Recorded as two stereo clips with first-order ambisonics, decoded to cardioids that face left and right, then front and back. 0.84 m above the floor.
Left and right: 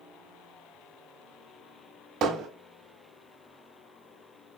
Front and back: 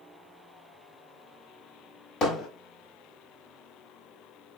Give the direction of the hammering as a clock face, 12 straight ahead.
2 o'clock.